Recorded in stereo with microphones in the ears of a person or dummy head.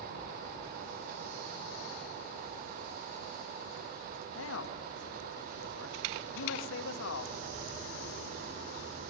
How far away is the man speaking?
About 1.4 m.